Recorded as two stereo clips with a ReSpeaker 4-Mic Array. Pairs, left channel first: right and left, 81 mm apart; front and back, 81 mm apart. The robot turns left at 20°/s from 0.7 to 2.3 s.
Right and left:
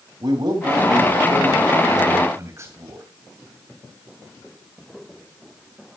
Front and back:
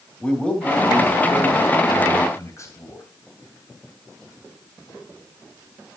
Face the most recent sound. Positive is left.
turn(degrees=40)